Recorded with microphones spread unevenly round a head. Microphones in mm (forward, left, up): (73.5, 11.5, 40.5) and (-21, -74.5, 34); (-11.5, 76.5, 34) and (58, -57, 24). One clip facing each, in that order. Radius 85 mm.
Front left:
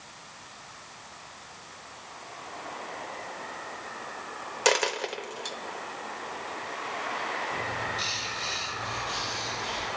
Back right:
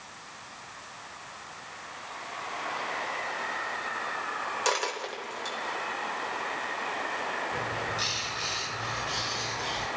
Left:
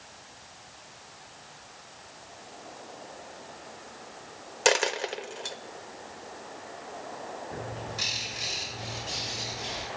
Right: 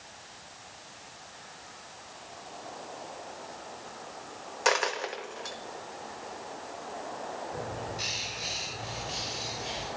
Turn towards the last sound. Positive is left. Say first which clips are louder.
# even, right 1 dB
turn(degrees=135)